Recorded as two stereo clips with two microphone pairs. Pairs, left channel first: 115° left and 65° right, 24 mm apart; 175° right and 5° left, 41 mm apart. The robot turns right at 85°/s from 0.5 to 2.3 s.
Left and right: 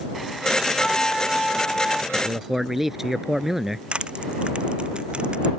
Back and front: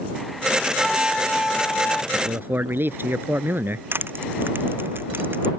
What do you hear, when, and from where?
0.8 s a flute: 90° left; by 2.0 s 160° right
2.1 s a man speaking: straight ahead; by 3.8 s 15° left
3.9 s crushing: 25° right